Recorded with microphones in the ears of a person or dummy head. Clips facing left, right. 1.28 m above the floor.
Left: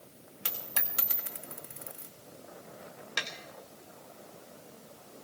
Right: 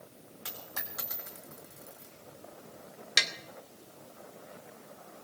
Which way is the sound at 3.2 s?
25° right (ahead or behind).